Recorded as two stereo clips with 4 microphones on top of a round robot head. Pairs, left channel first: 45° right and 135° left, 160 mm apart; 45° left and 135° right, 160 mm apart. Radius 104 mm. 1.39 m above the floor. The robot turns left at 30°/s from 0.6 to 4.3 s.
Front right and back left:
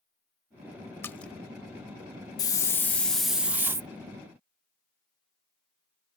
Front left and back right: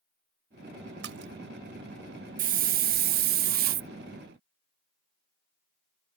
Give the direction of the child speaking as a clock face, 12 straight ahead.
No child speaking in this recording.